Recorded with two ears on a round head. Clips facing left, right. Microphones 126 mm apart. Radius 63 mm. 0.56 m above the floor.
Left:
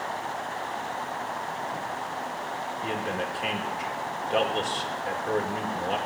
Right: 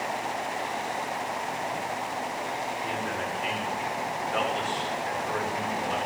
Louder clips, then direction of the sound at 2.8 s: Left 1 dB; 40° left (ahead or behind).